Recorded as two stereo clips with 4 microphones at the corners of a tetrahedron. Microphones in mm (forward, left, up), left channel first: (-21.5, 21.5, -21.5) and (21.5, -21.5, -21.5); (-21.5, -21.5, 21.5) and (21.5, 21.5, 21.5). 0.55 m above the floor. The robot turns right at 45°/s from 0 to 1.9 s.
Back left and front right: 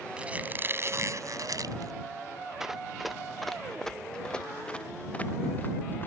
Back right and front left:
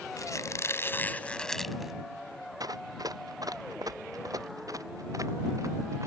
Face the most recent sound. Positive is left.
turn(degrees=80)